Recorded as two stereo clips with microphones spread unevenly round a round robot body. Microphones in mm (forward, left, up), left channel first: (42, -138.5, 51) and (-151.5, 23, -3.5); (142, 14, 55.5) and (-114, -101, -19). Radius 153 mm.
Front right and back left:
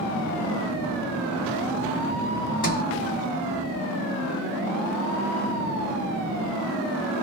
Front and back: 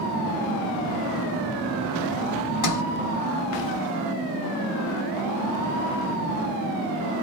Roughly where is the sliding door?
Ahead left.